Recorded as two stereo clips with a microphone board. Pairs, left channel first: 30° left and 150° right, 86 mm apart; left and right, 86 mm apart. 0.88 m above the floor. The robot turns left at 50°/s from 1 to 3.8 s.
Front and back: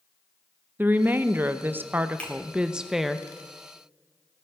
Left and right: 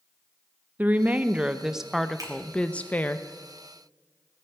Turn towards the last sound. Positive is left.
turn(degrees=-125)